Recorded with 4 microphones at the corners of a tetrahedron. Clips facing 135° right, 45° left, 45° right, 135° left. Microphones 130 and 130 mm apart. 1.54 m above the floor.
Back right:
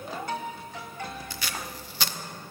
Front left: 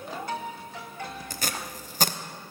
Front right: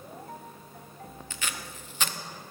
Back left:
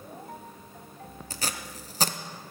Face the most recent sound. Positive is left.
turn(degrees=85)